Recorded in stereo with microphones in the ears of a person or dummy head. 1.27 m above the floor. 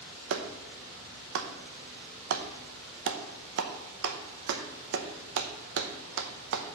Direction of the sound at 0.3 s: 65° right (ahead or behind).